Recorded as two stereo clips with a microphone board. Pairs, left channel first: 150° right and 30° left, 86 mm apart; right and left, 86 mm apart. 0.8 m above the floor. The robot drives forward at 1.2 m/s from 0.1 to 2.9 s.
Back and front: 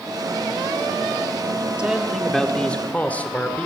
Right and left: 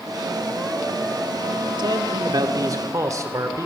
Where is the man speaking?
105° left, 1.9 m; by 3.7 s 135° left, 2.5 m.